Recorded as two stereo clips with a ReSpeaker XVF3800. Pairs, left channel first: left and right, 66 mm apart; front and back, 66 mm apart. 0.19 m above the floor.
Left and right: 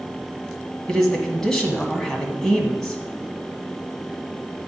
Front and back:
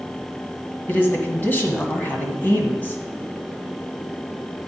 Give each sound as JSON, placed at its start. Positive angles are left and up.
{"t": 0.9, "sound": "a man speaking", "azimuth_deg": 15, "distance_m": 1.5}